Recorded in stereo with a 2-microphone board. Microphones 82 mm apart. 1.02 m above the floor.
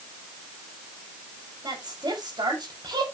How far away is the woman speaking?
About 5.5 m.